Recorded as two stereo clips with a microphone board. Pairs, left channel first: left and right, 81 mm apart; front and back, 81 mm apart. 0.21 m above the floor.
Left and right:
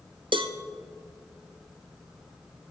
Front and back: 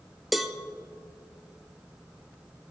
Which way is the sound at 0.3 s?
90° right.